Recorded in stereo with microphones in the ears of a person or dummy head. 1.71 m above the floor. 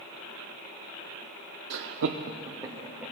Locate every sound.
1.7 s laughter: 60° right (ahead or behind), 0.6 m; by 3.1 s 5° right (ahead or behind), 1.4 m